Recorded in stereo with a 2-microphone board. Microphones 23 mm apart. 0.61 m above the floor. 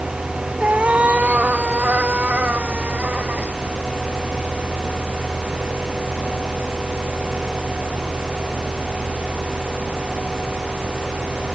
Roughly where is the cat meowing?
Right.